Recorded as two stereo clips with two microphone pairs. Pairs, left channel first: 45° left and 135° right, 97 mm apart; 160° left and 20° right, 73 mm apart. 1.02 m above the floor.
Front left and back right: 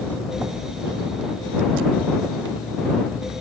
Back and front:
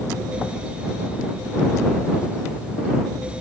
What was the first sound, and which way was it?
Only background noise.